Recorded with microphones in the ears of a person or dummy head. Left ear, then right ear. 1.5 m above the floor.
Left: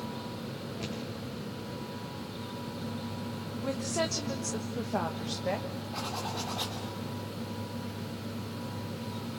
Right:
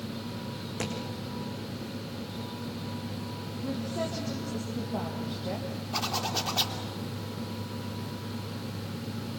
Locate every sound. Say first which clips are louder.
0.8 s a thud: right 6 dB; 70° right (ahead or behind), 5 m
3.6 s a woman speaking: left 2 dB; 70° left (ahead or behind), 1.6 m
5.9 s a zipper: right 6 dB; 35° right (ahead or behind), 3 m